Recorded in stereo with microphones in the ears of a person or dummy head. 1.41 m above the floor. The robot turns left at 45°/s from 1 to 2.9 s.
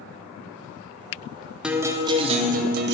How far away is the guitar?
About 0.6 m.